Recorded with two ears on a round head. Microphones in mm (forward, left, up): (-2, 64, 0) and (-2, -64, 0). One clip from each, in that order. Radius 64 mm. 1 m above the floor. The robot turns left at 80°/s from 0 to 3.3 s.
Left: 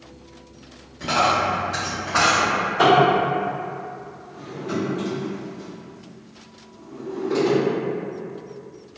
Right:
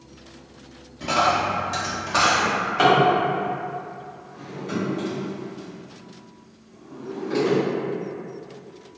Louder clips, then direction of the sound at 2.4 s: Left 1 dB; 80° right.